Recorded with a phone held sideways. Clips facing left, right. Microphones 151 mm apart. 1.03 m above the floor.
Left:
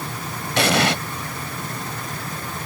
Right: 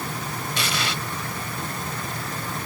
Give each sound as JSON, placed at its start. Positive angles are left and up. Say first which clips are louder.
{"t": 0.6, "sound": "an explosion", "louder": "left 12 dB", "side_deg": 70}